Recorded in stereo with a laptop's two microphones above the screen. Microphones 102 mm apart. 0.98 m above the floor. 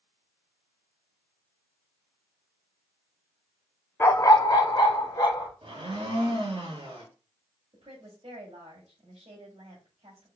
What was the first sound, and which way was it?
A dog barking, 25° left (ahead or behind).